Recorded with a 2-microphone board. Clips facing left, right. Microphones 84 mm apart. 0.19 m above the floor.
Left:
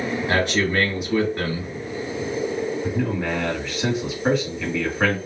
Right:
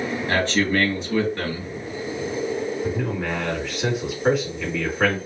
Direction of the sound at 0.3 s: 15° left (ahead or behind).